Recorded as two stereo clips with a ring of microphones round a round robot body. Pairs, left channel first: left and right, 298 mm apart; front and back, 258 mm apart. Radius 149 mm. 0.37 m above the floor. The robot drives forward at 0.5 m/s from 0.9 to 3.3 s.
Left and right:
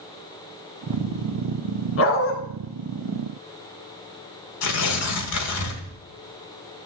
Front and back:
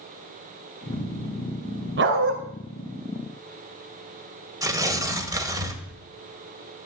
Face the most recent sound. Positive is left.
turn(degrees=105)